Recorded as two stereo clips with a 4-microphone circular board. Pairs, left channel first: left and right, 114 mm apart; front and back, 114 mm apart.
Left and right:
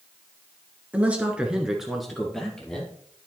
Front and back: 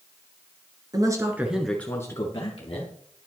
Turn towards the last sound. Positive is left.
turn(degrees=10)